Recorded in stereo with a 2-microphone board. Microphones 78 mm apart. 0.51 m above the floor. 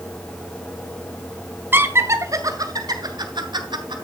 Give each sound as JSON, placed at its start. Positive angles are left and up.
{"t": 1.7, "sound": "laughter", "side_deg": -25, "distance_m": 2.0}